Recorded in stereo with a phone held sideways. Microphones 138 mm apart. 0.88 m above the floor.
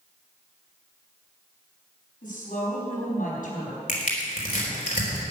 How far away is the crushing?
About 4 m.